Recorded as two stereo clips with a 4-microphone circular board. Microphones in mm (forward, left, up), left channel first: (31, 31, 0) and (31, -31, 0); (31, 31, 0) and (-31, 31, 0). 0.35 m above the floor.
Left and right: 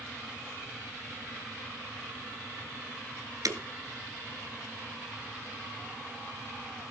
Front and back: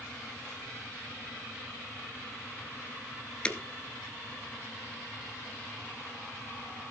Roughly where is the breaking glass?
Right.